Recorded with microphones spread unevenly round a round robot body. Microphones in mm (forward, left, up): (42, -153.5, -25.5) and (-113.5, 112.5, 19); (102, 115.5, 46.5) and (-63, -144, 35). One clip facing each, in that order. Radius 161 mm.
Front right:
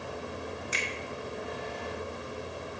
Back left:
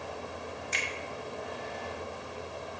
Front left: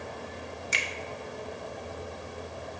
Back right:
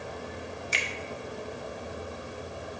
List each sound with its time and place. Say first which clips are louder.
0.7 s a finger snap: front right 2 dB, back right 2 dB; 20° left, 1.2 m